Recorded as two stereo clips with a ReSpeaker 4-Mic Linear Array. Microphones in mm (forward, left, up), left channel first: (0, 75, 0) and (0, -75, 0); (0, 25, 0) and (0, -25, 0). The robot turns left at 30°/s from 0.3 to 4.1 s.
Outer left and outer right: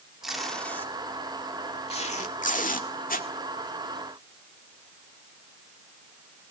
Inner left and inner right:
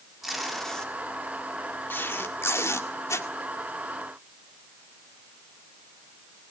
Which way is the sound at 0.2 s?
Centre (ahead or behind).